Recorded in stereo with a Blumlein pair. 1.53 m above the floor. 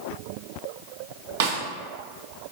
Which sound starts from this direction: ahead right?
A snare drum, at 1.4 s.